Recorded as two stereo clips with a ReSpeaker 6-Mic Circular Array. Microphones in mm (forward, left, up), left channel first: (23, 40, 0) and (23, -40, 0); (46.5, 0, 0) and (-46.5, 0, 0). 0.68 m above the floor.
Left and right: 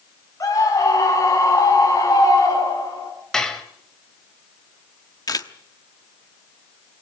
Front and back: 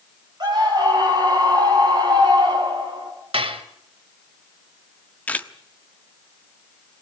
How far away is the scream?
About 6 m.